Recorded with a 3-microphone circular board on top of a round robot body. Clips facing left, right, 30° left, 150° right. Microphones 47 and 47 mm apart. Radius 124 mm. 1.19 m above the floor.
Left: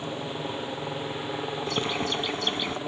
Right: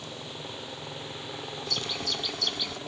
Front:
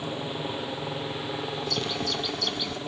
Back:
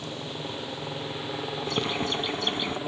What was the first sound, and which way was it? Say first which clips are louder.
A helicopter: left 8 dB, front 3 dB; 85° left.